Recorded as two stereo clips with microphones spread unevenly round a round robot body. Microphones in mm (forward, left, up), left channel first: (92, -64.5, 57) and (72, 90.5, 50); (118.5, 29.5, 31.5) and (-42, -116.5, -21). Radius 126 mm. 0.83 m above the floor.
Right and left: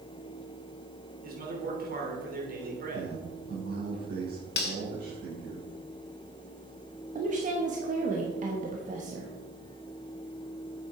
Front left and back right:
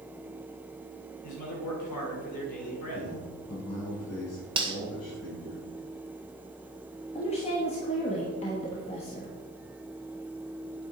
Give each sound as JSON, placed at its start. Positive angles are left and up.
{"t": 1.2, "sound": "a man speaking", "azimuth_deg": 75, "distance_m": 3.5}
{"t": 2.9, "sound": "a man speaking", "azimuth_deg": 80, "distance_m": 5.0}
{"t": 4.6, "sound": "cutlery clinking", "azimuth_deg": -70, "distance_m": 1.8}
{"t": 7.2, "sound": "a woman speaking", "azimuth_deg": 115, "distance_m": 1.3}